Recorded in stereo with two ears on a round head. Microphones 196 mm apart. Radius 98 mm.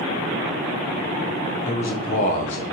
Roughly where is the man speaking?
Left.